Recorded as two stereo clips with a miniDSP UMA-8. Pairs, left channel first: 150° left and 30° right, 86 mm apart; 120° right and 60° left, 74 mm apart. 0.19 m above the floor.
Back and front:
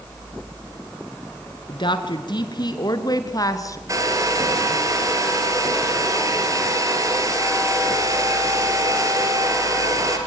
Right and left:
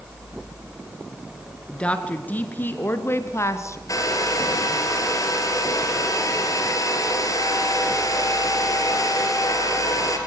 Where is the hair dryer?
80° right, 3.5 m.